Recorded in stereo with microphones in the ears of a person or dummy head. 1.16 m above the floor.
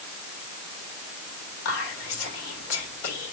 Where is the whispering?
80° left, 3.5 m.